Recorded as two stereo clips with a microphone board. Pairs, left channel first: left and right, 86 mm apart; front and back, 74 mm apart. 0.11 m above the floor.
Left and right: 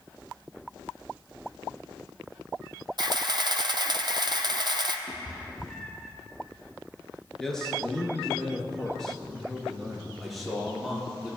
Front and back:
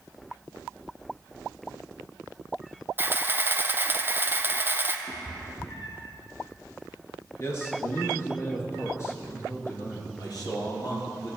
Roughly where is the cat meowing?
Ahead.